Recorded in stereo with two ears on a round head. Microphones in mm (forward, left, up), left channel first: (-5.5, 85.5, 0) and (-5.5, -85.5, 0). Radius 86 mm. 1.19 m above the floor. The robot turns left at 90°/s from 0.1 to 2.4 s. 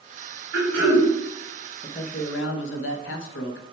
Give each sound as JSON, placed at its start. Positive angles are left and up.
{"t": 0.5, "sound": "throat clearing", "azimuth_deg": -70, "distance_m": 3.5}
{"t": 1.8, "sound": "a man speaking", "azimuth_deg": 155, "distance_m": 0.9}